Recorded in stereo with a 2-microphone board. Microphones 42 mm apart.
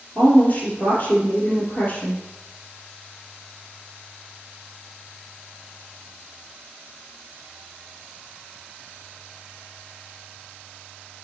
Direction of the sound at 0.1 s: 30° left (ahead or behind).